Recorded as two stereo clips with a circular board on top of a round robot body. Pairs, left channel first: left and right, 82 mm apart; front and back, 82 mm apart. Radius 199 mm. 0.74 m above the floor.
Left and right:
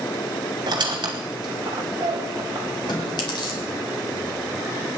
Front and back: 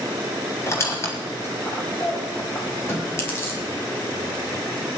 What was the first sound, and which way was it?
A squeak, 60° right.